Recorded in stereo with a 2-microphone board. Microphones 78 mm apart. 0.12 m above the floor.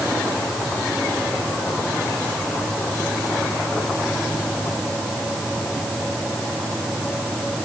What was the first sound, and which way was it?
Only background noise.